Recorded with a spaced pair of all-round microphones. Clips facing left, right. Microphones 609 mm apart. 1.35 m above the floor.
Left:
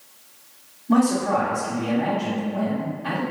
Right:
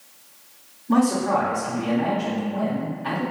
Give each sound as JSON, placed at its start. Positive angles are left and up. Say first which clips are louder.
{"t": 0.9, "sound": "a man speaking", "louder": "left 1 dB", "side_deg": 10, "distance_m": 0.8}